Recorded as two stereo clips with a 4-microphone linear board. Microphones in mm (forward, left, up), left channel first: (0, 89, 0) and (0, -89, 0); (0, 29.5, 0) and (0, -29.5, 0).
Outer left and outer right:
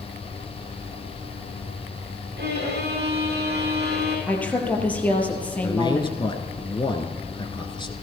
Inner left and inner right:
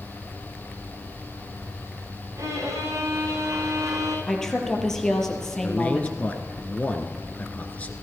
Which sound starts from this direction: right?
A violin, at 2.4 s.